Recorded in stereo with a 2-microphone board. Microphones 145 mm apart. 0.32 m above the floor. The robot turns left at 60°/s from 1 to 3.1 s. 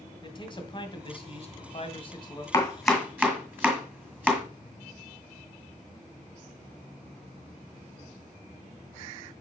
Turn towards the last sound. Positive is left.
turn(degrees=-10)  # may be behind; listen again after turning